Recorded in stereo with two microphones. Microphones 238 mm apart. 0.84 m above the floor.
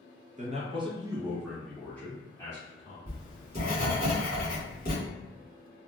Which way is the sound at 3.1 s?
40° left (ahead or behind).